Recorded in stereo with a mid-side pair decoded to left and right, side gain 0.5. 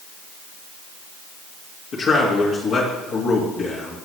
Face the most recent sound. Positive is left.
turn(degrees=60)